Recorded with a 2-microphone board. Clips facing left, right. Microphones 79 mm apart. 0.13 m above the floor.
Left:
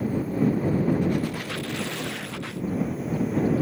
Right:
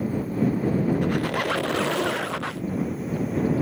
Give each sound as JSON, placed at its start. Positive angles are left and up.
{"t": 1.0, "sound": "a squeak", "side_deg": -70}